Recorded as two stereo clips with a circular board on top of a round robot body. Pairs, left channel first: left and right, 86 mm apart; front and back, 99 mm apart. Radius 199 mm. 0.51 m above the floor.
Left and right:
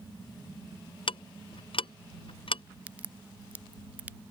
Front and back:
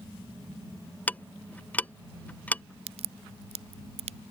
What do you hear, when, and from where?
1.1 s ticking: 75° left
2.9 s a crack: 165° right